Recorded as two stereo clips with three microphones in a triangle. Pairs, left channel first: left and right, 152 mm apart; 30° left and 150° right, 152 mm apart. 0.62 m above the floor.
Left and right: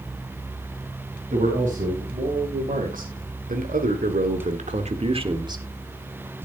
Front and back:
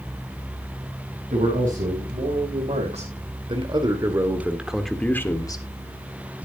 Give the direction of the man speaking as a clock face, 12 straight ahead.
4 o'clock.